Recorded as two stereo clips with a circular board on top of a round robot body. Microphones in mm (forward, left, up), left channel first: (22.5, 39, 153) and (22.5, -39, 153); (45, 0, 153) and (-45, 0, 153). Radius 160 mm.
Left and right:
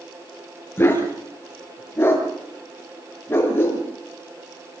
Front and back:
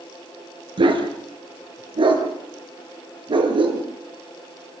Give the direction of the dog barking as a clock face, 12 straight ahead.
7 o'clock.